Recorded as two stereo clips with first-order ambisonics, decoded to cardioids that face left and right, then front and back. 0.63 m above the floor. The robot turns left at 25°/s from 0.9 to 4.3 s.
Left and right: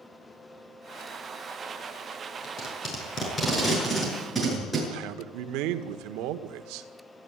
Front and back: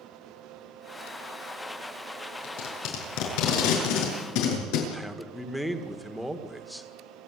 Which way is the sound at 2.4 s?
40° left.